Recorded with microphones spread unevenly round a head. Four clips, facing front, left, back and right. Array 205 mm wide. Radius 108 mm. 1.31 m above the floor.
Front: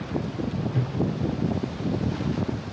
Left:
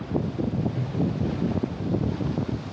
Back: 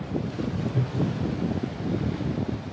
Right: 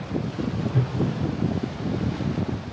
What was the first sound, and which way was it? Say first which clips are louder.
A whoosh: right 5 dB, even; 95° right.